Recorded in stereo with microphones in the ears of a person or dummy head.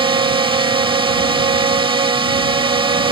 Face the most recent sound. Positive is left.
turn(degrees=-20)  # may be behind; listen again after turning